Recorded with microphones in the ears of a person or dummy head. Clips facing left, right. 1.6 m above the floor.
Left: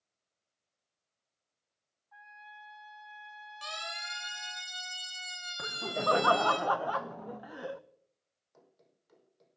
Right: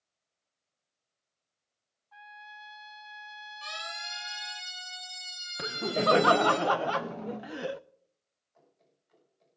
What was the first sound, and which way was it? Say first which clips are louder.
A trumpet: right 3 dB; 45° right (ahead or behind).